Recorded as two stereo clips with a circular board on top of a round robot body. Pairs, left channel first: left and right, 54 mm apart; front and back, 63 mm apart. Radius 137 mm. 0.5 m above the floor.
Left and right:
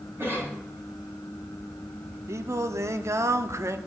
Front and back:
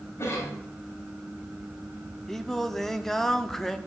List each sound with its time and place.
0.2 s a cough: 45° right, 4 m
2.3 s singing: 85° right, 1.0 m